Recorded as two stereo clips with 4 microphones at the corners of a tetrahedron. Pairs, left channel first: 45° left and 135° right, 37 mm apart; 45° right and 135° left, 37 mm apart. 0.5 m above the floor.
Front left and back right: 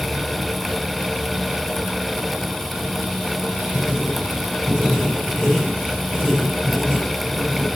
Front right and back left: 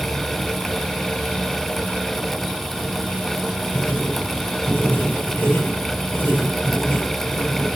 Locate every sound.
3.7 s writing: 65° right, 6 m